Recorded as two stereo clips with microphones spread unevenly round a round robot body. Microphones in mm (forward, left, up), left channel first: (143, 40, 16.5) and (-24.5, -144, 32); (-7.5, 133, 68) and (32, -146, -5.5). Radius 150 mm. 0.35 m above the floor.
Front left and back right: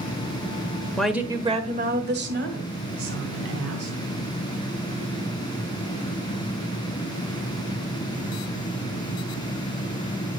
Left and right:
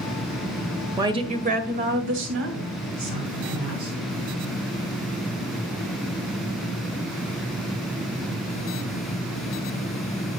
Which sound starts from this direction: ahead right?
A woman speaking, at 1.0 s.